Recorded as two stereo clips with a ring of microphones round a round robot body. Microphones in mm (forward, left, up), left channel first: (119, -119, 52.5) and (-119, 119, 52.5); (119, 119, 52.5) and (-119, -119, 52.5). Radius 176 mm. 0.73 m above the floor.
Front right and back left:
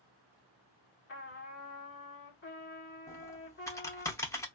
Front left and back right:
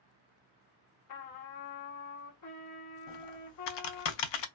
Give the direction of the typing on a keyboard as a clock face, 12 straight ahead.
11 o'clock.